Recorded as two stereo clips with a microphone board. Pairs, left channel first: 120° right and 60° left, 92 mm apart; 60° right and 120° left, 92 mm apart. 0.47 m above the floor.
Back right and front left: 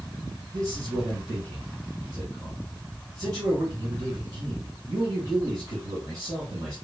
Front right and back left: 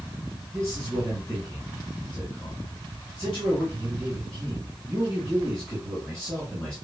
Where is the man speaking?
20° left, 3.5 m.